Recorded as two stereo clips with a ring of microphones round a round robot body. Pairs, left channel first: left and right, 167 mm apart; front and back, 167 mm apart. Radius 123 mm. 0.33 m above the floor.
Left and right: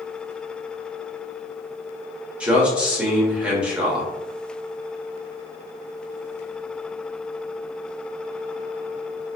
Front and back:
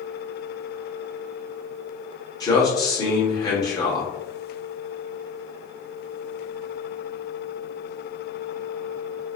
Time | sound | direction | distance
2.4 | a man speaking | 20° right | 0.8 m